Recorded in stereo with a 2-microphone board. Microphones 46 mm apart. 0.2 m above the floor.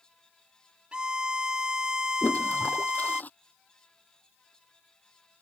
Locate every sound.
0.9 s a violin: 20° right (ahead or behind)
2.2 s a toilet flushing: 35° left (ahead or behind)